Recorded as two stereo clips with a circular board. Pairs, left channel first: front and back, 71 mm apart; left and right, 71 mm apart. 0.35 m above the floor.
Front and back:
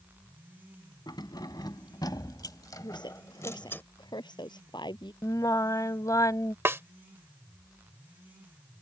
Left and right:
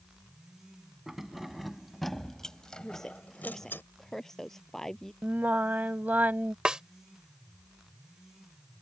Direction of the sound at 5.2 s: 30° right.